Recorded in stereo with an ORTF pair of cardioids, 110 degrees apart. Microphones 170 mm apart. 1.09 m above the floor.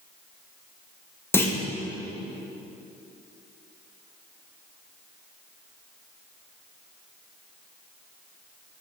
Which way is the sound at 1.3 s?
15° left.